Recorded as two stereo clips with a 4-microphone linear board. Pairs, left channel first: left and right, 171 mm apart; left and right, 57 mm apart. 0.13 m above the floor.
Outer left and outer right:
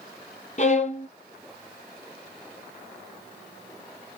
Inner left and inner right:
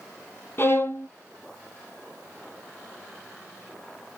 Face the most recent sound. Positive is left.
turn(degrees=45)  # may be behind; listen again after turning